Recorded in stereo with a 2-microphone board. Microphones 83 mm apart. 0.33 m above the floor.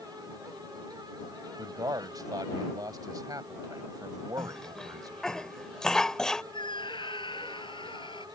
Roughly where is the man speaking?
Right.